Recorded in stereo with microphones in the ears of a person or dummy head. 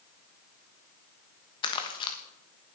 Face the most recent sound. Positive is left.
turn(degrees=30)  # may be behind; listen again after turning